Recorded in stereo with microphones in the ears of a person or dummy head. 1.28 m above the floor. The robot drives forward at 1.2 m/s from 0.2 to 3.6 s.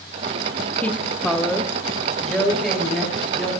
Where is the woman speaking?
15° left (ahead or behind), 0.8 m; by 3.6 s 5° left (ahead or behind), 4 m.